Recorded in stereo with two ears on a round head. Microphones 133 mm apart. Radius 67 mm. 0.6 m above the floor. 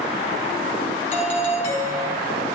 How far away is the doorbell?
About 3.5 m.